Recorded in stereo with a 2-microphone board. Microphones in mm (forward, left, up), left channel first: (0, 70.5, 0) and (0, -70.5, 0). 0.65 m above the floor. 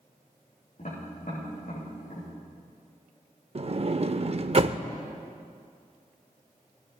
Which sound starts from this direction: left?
Tapping, at 0.8 s.